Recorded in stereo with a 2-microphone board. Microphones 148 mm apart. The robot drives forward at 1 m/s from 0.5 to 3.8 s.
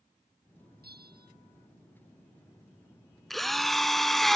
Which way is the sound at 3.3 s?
Centre (ahead or behind).